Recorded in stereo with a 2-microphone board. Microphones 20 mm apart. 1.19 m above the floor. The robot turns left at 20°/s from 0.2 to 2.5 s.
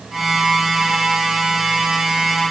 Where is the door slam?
No door slam in this recording.